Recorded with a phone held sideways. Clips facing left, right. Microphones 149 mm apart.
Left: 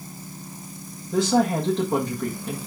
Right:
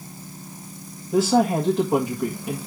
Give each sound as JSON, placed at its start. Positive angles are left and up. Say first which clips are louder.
{"t": 1.1, "sound": "a woman speaking", "louder": "right 2 dB", "side_deg": -5, "distance_m": 1.5}